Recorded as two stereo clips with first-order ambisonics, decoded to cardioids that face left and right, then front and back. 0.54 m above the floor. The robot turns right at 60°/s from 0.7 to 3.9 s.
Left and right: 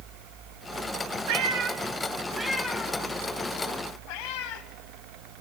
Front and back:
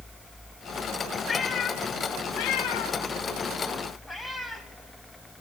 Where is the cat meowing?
75° right, 1.3 m; by 4.6 s 80° left, 1.3 m.